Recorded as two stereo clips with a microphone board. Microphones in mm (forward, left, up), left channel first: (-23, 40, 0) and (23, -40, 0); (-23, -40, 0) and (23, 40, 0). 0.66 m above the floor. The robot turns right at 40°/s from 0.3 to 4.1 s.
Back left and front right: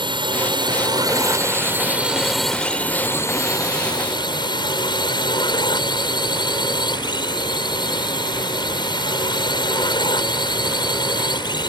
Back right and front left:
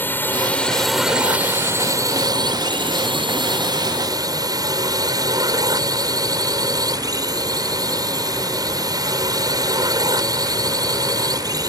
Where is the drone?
55° right; by 11.7 s 100° left.